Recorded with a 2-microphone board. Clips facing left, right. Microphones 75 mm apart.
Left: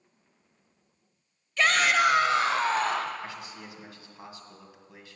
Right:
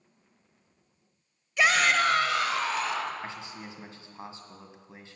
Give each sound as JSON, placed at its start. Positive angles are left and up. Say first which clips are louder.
{"t": 1.6, "sound": "a shout", "louder": "even", "side_deg": -15, "distance_m": 1.0}
{"t": 3.2, "sound": "a man speaking", "louder": "right 1 dB", "side_deg": -25, "distance_m": 1.7}